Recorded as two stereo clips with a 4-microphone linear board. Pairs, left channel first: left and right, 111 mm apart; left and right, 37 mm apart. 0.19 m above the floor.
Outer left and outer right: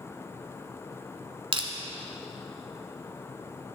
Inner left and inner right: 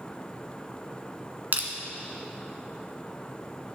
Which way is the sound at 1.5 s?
50° right (ahead or behind).